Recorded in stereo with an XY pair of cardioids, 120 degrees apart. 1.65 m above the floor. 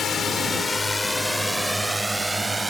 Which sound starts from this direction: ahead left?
A drone, at 0.0 s.